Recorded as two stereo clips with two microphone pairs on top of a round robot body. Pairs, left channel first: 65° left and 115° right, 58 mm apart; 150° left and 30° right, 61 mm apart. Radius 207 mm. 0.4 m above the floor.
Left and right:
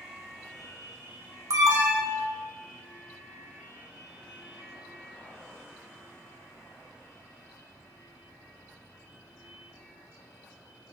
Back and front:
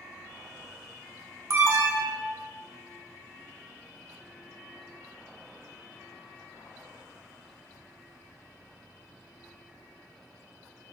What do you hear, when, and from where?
1.5 s an alarm: 75° right, 1.3 m